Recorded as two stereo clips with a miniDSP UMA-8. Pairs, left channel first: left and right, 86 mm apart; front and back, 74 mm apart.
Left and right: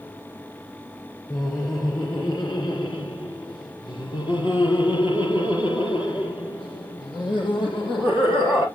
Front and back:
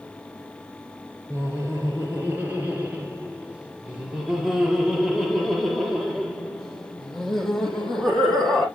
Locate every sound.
1.3 s laughter: 130° left, 2.5 m; by 8.7 s 85° left, 5.5 m